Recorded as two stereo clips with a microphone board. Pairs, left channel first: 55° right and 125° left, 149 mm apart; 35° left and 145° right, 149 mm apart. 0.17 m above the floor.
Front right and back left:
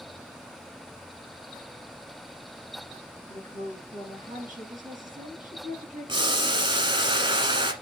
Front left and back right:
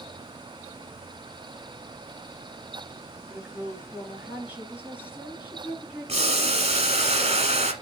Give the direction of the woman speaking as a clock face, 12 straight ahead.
7 o'clock.